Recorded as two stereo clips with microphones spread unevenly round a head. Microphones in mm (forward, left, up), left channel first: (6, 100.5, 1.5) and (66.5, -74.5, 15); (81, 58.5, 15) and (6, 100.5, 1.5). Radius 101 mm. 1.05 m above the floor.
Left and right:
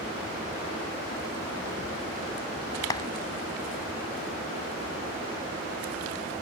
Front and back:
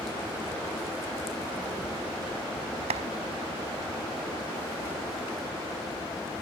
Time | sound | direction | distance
2.9 | a clap | 175° right | ?